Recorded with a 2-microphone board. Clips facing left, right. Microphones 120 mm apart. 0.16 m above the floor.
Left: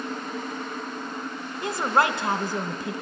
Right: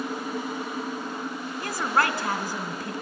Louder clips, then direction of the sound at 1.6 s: Left 3 dB; 20° left (ahead or behind).